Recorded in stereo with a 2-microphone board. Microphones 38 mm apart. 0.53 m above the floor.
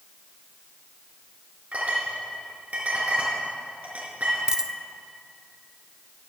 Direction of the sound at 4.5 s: 20° right (ahead or behind).